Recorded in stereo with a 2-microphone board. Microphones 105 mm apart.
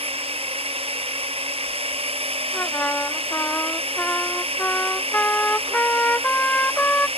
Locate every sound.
0.0 s a drone: 70° right (ahead or behind)
2.5 s a trumpet: 15° left (ahead or behind)